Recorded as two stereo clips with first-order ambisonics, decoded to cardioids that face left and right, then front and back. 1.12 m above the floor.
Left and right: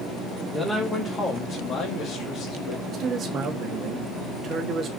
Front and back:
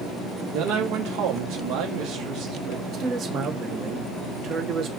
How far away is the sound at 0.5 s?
About 1.8 m.